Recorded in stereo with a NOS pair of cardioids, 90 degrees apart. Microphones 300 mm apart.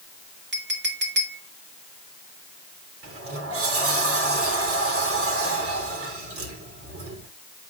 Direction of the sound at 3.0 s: 50° right.